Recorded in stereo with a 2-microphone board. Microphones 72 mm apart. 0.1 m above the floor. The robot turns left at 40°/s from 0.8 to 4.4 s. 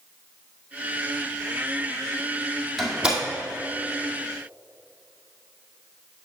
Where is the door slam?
Centre (ahead or behind), 2 m; by 3.2 s 20° right (ahead or behind), 2 m.